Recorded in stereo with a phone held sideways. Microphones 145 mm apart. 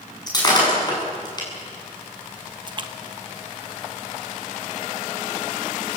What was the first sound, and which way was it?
Breaking glass, 30° left (ahead or behind).